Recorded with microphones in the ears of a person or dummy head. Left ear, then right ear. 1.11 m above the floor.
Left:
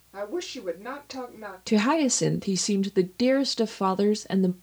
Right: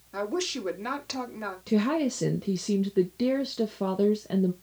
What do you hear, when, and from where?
0.1 s a woman speaking: 75° right (ahead or behind), 3 m
1.7 s a woman speaking: 30° left (ahead or behind), 0.6 m